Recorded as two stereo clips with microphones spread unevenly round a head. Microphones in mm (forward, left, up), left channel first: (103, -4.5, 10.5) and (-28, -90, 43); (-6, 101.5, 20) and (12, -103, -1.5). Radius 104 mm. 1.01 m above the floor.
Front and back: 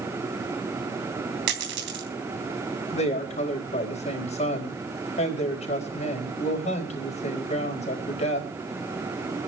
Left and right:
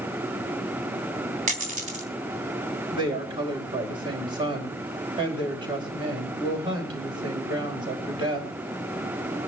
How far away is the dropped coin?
About 3 m.